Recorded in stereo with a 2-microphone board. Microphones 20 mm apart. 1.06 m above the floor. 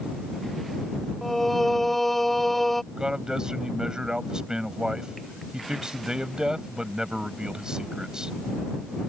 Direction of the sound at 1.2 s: 10° left (ahead or behind).